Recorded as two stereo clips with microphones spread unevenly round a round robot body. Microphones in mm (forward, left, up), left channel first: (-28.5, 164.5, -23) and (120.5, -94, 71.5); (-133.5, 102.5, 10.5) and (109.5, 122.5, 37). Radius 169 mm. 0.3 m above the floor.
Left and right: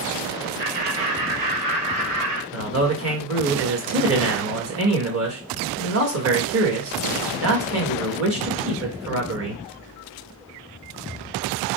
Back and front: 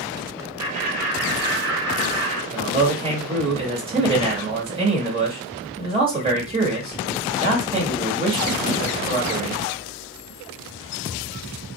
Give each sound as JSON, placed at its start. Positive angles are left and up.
{"t": 0.6, "sound": "laughter", "azimuth_deg": -60, "distance_m": 2.0}
{"t": 2.5, "sound": "a man speaking", "azimuth_deg": -50, "distance_m": 1.5}